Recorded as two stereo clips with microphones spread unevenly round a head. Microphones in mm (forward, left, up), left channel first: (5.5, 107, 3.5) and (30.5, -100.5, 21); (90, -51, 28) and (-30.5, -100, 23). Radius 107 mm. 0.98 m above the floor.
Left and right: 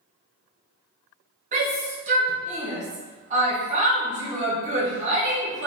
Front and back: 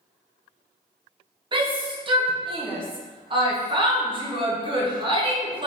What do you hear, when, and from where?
1.5 s a shout: 130° right, 1.1 m